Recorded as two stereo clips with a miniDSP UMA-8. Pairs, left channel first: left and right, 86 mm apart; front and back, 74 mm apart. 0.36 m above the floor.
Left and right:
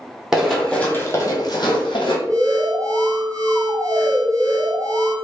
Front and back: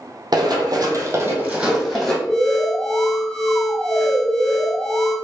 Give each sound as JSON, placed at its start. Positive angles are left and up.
{"t": 0.3, "sound": "running footsteps", "azimuth_deg": -175, "distance_m": 0.8}
{"t": 2.3, "sound": "an alarm", "azimuth_deg": -105, "distance_m": 1.4}